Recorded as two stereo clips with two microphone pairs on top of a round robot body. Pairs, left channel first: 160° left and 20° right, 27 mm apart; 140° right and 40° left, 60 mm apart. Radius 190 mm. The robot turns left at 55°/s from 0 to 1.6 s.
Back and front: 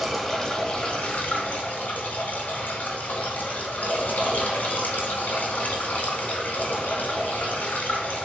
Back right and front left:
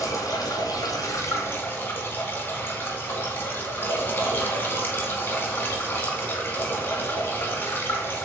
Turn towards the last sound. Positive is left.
turn(degrees=165)